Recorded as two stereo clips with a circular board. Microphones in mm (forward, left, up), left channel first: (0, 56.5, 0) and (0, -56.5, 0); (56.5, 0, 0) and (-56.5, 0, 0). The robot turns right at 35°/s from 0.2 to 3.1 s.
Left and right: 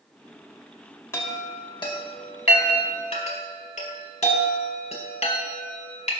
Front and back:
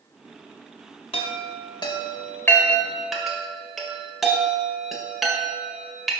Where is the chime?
25° left, 1.9 m; by 6.1 s 90° left, 1.9 m.